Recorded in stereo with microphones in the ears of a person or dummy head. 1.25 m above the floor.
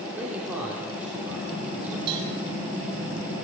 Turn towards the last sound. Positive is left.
turn(degrees=-30)  # may be behind; listen again after turning